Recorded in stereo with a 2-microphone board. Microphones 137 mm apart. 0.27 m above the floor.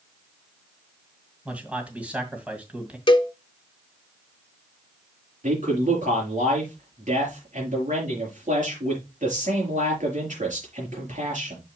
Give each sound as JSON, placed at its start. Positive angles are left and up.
{"t": 1.4, "sound": "a man speaking", "side_deg": -10, "distance_m": 2.0}
{"t": 3.1, "sound": "a cowbell", "side_deg": 35, "distance_m": 0.5}
{"t": 5.4, "sound": "a man speaking", "side_deg": -65, "distance_m": 5.5}